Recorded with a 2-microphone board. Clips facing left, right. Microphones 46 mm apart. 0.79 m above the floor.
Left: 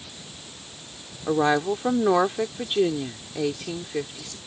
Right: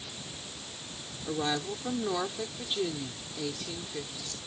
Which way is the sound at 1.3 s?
45° left (ahead or behind).